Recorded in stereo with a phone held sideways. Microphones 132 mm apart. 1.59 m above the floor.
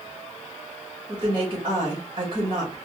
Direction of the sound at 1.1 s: 40° right (ahead or behind).